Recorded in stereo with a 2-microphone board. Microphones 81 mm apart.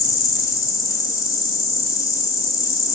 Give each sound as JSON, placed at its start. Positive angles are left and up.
{"t": 0.0, "sound": "an insect", "side_deg": 45, "distance_m": 0.9}